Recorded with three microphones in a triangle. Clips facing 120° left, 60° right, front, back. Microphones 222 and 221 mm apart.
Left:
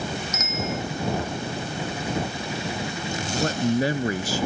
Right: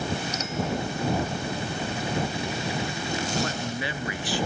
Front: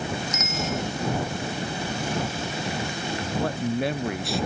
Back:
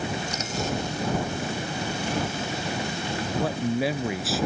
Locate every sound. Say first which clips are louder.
0.3 s a bicycle bell: even, even; 120° right
3.2 s a man speaking: left 7 dB, back 1 dB; 95° left